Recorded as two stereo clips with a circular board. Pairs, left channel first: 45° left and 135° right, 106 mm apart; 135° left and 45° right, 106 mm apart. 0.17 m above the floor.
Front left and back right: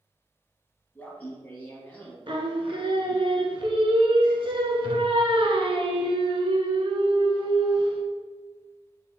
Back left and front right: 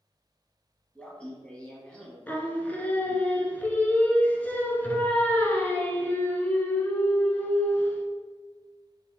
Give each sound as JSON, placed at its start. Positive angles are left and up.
{"t": 0.9, "sound": "laughter", "azimuth_deg": 75, "distance_m": 1.0}
{"t": 2.3, "sound": "singing", "azimuth_deg": -155, "distance_m": 0.5}